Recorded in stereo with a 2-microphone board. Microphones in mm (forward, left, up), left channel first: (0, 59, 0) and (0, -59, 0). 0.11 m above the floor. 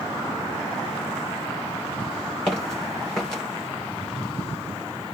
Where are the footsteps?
5° left (ahead or behind), 4 m.